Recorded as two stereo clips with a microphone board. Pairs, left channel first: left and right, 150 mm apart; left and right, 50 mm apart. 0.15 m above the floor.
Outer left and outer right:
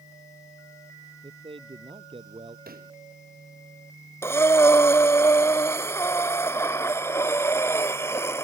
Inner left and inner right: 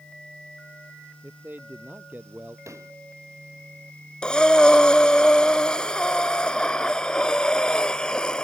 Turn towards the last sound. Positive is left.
turn(degrees=15)  # may be behind; listen again after turning